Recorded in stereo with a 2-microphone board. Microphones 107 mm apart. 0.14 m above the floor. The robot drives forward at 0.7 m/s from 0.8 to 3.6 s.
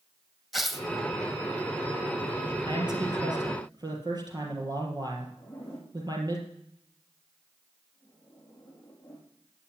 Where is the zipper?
15° left (ahead or behind), 7 m.